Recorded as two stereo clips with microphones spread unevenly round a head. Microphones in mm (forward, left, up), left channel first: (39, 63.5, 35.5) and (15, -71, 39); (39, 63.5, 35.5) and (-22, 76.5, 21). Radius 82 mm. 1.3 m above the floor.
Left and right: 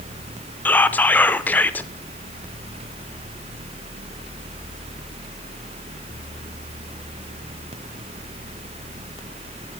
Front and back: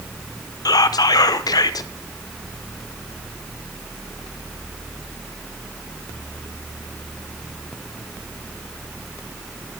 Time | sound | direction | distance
0.7 | whispering | straight ahead | 0.6 m